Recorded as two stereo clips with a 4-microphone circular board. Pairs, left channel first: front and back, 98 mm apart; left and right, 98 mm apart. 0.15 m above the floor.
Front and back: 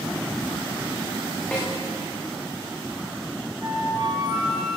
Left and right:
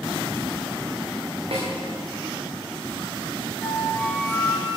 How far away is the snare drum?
About 5 m.